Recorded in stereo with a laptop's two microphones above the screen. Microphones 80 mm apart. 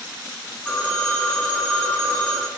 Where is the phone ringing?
20° left (ahead or behind), 1.7 m.